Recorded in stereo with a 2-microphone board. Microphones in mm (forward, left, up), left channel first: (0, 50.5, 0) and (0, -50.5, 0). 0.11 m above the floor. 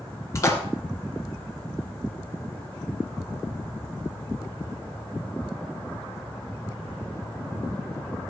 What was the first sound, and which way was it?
A splash, 30° left (ahead or behind).